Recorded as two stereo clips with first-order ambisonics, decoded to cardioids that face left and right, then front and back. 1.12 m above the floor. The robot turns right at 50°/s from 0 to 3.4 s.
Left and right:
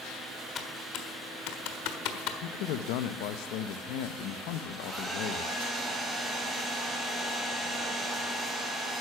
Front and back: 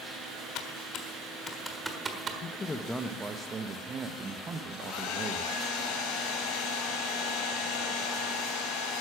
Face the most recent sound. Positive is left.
turn(degrees=-5)